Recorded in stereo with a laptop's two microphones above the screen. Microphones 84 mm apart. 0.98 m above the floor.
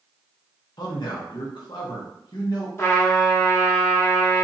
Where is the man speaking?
60° left (ahead or behind), 0.8 m.